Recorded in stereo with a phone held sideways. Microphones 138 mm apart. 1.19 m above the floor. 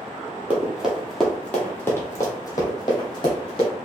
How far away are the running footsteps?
About 1.4 m.